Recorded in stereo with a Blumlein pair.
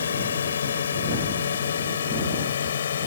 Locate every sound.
0.0 s a drone: 70° left; by 3.1 s 65° left